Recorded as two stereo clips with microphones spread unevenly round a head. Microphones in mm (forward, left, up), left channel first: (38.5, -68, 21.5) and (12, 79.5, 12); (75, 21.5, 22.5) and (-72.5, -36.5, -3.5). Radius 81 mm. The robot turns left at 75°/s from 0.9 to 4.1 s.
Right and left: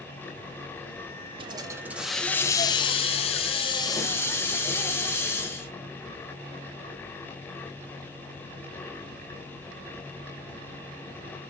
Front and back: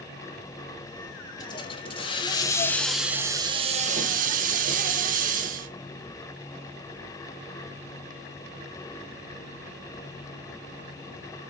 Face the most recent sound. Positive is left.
turn(degrees=-145)